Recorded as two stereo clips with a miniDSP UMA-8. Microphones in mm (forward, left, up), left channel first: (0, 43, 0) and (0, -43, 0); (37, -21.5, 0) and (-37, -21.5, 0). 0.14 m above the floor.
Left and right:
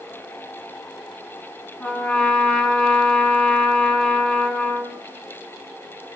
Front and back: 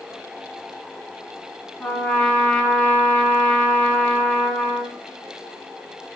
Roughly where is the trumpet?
Ahead left.